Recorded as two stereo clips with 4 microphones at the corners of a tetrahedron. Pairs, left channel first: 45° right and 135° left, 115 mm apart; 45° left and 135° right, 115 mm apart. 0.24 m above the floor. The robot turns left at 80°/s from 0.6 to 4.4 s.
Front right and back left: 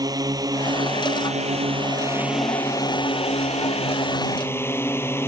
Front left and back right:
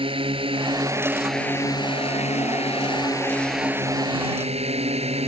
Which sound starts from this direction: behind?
A drone, at 0.0 s.